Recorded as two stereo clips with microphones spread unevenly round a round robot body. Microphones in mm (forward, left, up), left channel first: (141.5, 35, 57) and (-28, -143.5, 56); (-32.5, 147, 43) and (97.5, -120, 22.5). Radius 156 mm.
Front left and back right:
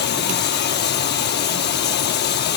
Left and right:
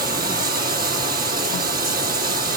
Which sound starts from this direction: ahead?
Running water, at 0.0 s.